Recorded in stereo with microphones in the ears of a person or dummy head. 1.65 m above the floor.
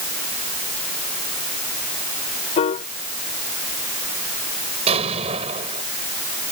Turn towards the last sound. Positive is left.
turn(degrees=-30)  # may be behind; listen again after turning